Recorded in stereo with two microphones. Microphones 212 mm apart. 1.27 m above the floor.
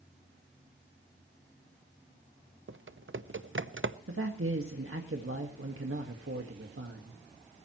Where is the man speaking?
85° right, 1.7 m.